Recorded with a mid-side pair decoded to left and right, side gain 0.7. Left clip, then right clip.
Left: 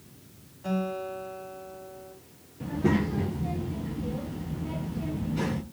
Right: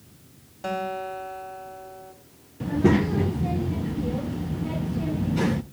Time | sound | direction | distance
0.6 | a guitar | 55° right | 3.5 m
2.6 | a child speaking | 25° right | 0.5 m